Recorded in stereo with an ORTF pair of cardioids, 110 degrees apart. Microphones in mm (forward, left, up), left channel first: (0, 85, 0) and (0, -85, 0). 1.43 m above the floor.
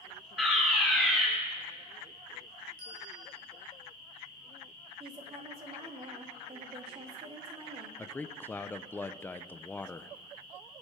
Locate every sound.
0.4 s a fire alarm: straight ahead, 4 m
2.8 s a bell: 60° right, 7 m
5.0 s a woman speaking: 35° right, 3 m
8.0 s a man speaking: 10° left, 0.7 m